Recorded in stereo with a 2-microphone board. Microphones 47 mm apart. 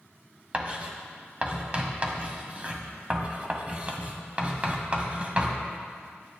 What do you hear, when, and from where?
0.5 s writing: 30° right (ahead or behind), 1.7 m